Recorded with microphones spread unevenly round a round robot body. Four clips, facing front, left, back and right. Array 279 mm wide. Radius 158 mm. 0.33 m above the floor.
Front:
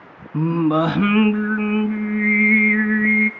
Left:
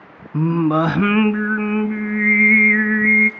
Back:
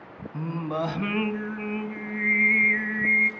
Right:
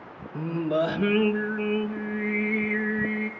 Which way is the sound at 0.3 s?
55° left.